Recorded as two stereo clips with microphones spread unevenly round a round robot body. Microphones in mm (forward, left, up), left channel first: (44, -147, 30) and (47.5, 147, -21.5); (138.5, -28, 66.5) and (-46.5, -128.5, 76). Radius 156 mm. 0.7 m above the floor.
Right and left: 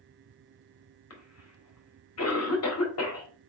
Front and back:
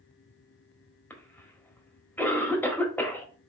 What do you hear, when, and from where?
1.1 s a cough: 50° right, 1.7 m